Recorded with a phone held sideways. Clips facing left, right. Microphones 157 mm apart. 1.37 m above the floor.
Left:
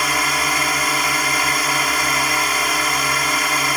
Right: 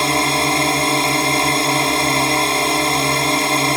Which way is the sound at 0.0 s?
25° right (ahead or behind).